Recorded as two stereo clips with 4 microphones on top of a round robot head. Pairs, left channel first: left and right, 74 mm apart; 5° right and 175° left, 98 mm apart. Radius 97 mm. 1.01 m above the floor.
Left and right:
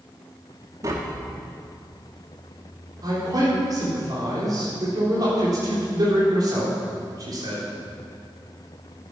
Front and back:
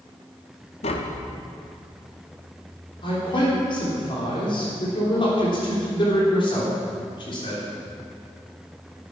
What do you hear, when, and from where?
0.8 s tapping: 30° right, 1.0 m
3.0 s a man speaking: 45° right, 3.5 m